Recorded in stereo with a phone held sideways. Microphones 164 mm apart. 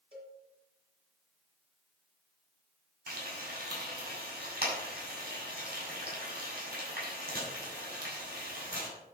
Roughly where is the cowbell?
Right.